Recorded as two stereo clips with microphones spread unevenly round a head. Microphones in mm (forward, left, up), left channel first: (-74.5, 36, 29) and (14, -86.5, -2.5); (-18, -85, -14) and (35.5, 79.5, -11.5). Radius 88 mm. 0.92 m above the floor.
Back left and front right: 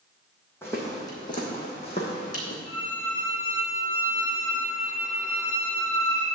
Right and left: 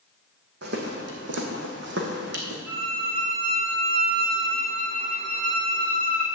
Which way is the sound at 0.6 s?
55° left.